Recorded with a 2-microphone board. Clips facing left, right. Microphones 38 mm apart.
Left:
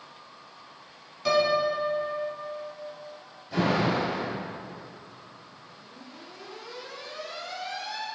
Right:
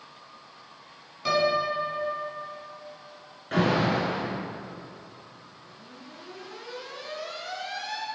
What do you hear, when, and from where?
1.2 s a piano: 5° right (ahead or behind), 1.4 m
3.5 s an alarm: 60° right (ahead or behind), 1.8 m